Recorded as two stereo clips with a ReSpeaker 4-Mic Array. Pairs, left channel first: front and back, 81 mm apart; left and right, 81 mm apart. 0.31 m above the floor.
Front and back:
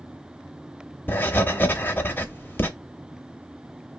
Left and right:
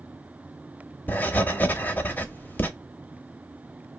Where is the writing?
45° left, 0.7 m.